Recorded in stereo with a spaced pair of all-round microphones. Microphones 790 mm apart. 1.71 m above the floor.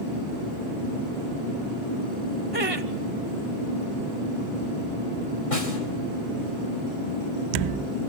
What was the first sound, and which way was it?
Laughter, 15° right (ahead or behind).